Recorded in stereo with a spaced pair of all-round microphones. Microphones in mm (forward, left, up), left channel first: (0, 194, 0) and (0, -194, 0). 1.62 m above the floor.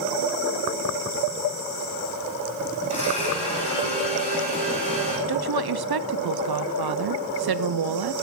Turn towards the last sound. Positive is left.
turn(degrees=-70)  # may be behind; listen again after turning